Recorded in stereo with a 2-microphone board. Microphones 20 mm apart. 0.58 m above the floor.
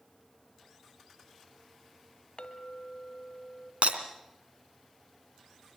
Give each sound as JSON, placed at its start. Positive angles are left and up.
{"t": 2.4, "sound": "a clink", "side_deg": 70, "distance_m": 1.9}
{"t": 3.8, "sound": "breaking glass", "side_deg": -85, "distance_m": 2.5}